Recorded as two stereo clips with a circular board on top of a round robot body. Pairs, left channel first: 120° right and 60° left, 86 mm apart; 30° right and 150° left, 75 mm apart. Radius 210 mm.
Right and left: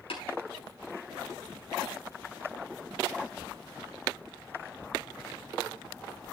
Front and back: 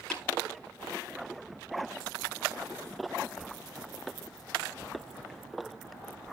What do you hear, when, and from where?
0.1 s tapping: 115° right, 7 m